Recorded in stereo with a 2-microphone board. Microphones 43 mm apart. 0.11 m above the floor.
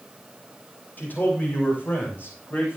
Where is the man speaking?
45° left (ahead or behind), 6.5 m; by 2.8 s 50° left (ahead or behind), 8.5 m.